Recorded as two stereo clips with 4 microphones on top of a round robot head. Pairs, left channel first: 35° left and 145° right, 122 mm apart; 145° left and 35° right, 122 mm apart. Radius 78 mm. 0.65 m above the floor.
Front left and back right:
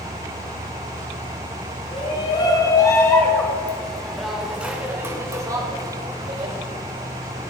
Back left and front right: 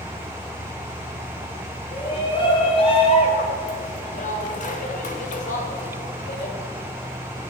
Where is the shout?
90° left, 3.5 m; by 6.5 s 165° left, 3.5 m.